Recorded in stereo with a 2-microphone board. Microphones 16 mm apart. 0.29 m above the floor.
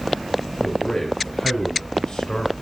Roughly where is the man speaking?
Left.